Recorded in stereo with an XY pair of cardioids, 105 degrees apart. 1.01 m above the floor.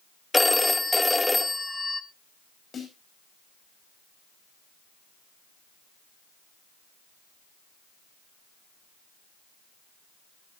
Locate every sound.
0.3 s a phone ringing: 10° left, 1.1 m
2.7 s a snare drum: 45° left, 6 m